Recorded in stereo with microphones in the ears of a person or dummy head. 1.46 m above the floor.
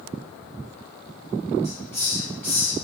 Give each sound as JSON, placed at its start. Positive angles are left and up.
{"t": 1.6, "sound": "a hiss", "side_deg": 5, "distance_m": 0.9}